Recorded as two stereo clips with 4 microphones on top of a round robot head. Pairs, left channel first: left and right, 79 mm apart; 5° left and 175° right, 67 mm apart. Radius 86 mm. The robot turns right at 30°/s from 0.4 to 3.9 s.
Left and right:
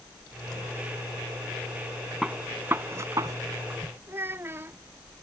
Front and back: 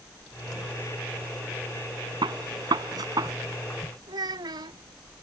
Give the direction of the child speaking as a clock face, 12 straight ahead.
5 o'clock.